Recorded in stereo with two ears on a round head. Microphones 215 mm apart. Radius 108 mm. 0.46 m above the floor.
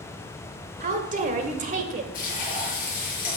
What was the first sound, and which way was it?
A woman speaking, 35° right (ahead or behind).